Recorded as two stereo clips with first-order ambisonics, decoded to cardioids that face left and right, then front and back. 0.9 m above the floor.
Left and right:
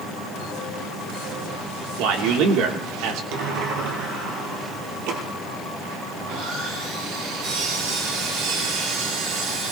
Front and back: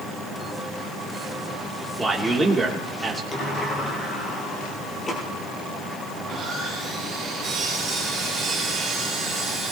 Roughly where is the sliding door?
Right.